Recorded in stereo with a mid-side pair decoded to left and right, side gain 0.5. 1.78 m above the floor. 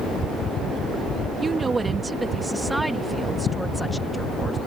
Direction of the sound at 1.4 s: 35° right.